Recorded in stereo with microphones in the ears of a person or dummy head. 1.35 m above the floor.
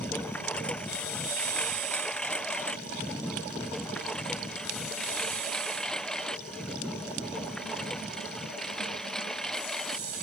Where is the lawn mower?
5° left (ahead or behind); by 10.2 s centre (ahead or behind).